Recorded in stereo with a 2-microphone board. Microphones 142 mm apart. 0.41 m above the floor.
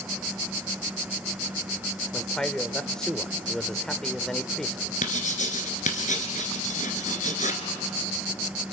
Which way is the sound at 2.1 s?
5° left (ahead or behind).